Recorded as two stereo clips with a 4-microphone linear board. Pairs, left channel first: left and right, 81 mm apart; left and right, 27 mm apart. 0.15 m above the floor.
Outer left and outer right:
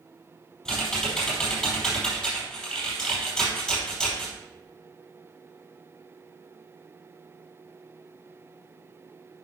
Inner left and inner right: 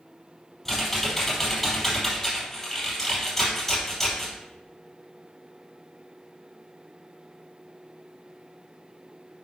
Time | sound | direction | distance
0.7 | typing on a keyboard | 10° left (ahead or behind) | 4.5 m